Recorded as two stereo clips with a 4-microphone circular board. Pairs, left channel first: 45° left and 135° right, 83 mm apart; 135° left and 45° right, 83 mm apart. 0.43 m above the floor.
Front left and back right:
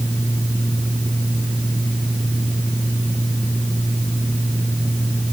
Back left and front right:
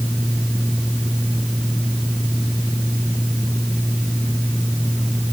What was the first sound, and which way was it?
Only background noise.